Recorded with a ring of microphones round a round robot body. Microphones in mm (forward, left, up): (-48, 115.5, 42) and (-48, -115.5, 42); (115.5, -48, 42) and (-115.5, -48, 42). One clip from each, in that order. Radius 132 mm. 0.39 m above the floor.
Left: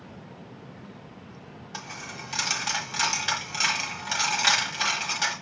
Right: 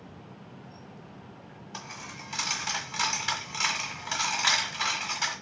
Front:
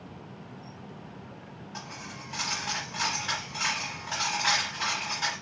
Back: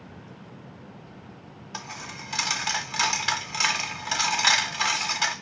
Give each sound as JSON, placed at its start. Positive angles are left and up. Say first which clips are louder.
{"t": 1.7, "sound": "a dropped coin", "louder": "left 3 dB, back 5 dB", "azimuth_deg": 170, "distance_m": 1.2}